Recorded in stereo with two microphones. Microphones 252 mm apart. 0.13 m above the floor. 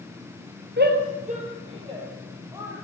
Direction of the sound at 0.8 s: 40° right (ahead or behind).